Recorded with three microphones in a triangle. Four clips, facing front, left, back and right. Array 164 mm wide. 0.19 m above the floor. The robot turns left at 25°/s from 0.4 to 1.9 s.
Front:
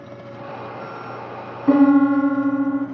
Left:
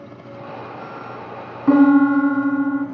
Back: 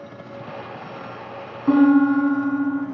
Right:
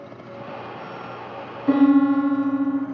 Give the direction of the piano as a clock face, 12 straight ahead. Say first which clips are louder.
Left 3 dB, front 1 dB; 9 o'clock.